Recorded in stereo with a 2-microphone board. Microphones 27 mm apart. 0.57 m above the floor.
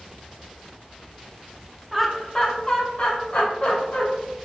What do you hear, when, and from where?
1.9 s laughter: 10° right (ahead or behind), 0.7 m; by 4.0 s 45° left (ahead or behind), 1.8 m